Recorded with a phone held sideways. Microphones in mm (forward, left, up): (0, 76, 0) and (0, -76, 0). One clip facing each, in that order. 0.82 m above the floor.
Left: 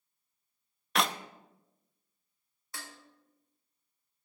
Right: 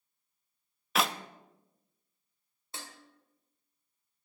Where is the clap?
Centre (ahead or behind), 0.6 m.